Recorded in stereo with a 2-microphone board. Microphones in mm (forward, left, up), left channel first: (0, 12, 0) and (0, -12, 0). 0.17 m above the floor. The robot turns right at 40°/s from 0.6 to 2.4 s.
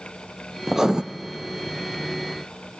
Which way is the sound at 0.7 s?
15° right (ahead or behind).